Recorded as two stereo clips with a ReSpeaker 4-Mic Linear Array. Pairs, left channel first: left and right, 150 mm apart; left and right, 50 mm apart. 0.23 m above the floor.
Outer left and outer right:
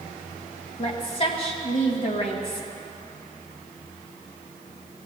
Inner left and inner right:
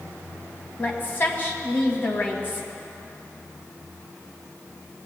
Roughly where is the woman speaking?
Left.